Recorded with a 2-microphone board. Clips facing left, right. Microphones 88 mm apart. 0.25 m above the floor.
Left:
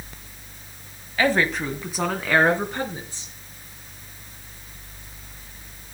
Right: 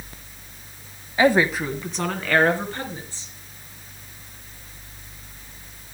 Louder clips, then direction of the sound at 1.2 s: Right 3 dB; 20° right (ahead or behind).